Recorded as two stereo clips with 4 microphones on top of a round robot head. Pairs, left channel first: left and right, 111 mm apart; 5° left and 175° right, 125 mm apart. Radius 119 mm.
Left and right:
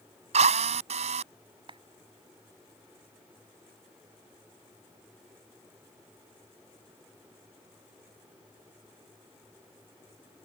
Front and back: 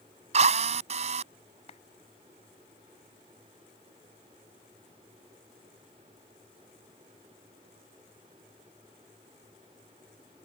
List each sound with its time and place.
0.3 s a drill: 130° right
1.7 s a clap: 45° right